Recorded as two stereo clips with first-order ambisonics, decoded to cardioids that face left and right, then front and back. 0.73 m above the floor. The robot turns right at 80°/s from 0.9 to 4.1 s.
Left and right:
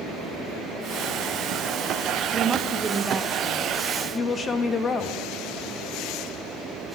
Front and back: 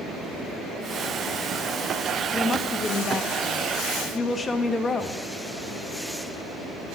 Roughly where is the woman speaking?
Right.